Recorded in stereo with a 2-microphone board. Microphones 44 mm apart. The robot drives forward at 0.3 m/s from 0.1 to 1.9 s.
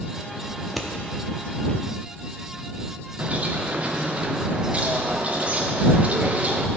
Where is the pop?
I don't hear a pop.